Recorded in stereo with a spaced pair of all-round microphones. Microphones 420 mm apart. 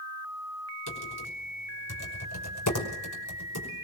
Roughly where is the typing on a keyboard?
Left.